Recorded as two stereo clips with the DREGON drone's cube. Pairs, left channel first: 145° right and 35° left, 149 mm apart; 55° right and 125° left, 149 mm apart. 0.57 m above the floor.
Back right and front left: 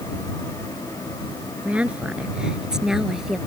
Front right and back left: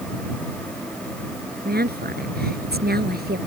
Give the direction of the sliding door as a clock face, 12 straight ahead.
I don't hear a sliding door.